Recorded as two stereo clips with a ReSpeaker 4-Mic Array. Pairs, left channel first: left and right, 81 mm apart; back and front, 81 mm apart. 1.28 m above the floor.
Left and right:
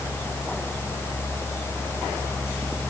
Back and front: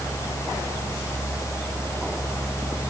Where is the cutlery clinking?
No cutlery clinking in this recording.